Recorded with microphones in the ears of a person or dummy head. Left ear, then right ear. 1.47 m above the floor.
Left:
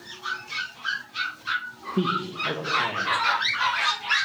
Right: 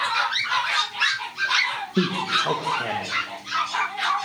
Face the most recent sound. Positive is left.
turn(degrees=-50)  # may be behind; listen again after turning